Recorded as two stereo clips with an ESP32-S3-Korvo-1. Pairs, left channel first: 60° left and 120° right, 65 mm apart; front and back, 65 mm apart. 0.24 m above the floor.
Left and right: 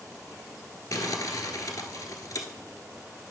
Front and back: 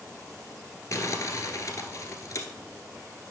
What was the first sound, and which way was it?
Crumpling, 40° left.